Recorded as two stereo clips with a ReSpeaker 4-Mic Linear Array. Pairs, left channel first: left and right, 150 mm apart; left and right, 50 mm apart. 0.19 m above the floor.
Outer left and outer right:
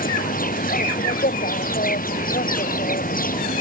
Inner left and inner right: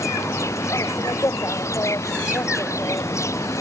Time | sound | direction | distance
0.0 | an insect | 70° left (ahead or behind) | ?